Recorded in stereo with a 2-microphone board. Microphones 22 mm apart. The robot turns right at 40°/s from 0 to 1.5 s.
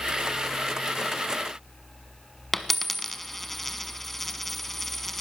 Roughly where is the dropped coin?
Centre.